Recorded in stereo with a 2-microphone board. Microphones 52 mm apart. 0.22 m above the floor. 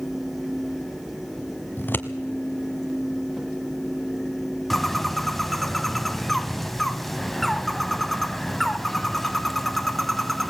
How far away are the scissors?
About 1.1 m.